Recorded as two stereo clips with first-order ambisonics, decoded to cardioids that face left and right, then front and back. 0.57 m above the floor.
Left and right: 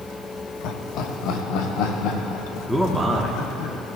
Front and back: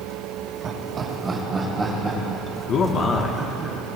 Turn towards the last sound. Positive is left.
turn(degrees=5)